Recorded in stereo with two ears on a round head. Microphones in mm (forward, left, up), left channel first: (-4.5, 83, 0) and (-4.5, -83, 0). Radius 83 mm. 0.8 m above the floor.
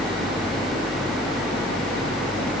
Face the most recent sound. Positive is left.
No sound to turn to.